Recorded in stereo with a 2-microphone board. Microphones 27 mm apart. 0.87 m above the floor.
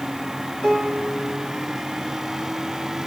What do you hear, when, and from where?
0.6 s a piano: 15° left (ahead or behind), 2 m